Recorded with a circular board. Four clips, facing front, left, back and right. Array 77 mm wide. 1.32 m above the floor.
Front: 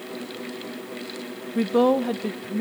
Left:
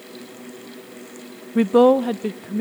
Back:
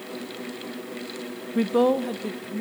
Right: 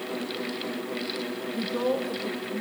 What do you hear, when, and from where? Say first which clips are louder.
1.6 s a woman speaking: left 14 dB, front 1 dB; 95° left, 0.5 m; by 2.6 s 65° left, 1.5 m